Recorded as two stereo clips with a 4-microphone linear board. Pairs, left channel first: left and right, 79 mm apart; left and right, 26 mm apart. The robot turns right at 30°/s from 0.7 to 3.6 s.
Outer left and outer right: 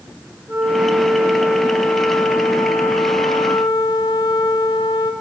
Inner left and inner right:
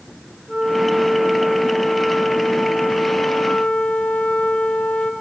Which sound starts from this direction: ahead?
A flute, at 0.5 s.